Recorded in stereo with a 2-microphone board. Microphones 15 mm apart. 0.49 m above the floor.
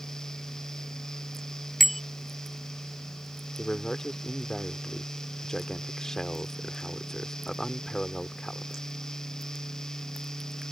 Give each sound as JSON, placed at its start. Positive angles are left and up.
{"t": 1.8, "sound": "a bicycle bell", "side_deg": 0}
{"t": 3.6, "sound": "a man speaking", "side_deg": 35}